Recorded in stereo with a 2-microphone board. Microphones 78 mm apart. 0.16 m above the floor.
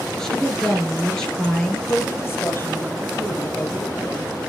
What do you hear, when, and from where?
0.2 s a woman speaking: 5° left (ahead or behind), 3.5 m
1.9 s a woman speaking: 30° left (ahead or behind), 4 m